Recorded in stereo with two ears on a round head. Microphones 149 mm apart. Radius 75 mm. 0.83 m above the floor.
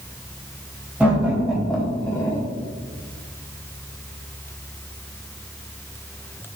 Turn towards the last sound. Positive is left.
turn(degrees=15)  # may be behind; listen again after turning